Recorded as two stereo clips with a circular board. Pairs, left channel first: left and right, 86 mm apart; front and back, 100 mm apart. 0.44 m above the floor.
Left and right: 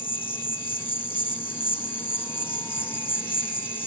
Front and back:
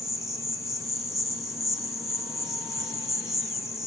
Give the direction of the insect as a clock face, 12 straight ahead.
9 o'clock.